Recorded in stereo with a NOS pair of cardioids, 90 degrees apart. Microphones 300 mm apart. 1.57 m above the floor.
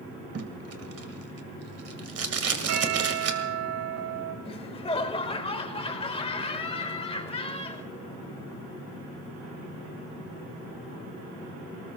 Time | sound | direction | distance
0.3 | tape being pulled | 50° right | 2 m
2.7 | a bell | 65° right | 5 m
4.5 | laughter | 20° left | 1.9 m